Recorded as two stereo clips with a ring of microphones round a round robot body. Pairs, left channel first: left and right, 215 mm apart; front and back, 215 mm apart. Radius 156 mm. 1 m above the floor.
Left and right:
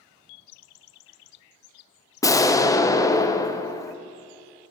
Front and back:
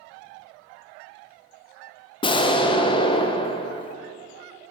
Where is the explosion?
35° left, 0.5 m.